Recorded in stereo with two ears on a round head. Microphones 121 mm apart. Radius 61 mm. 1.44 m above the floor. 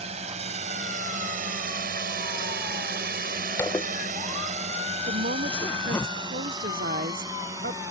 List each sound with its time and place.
0.0 s a drone: 50° right (ahead or behind); by 7.9 s 20° right (ahead or behind)
3.6 s a zipper: 15° left (ahead or behind)
5.1 s a woman speaking: 65° right (ahead or behind)